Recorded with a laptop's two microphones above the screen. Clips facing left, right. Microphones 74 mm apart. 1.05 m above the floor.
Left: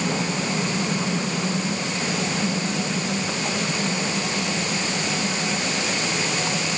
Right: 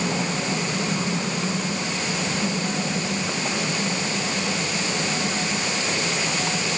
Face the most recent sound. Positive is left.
No sound to turn to.